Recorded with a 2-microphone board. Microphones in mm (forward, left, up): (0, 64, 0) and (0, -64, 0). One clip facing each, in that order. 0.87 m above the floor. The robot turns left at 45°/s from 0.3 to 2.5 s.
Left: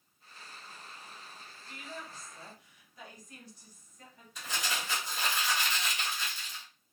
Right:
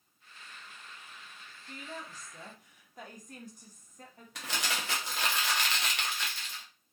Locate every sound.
1.7 s a woman speaking: 50° right, 0.9 m; by 4.2 s 85° right, 0.9 m
4.3 s crumpling: 75° right (ahead or behind), 0.7 m